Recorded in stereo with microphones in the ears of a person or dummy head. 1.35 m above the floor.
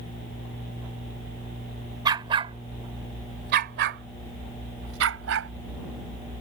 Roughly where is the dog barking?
Right.